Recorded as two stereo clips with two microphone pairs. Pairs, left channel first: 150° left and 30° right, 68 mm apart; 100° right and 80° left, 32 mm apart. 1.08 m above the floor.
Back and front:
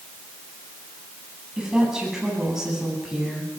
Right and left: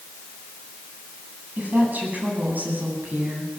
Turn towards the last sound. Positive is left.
turn(degrees=55)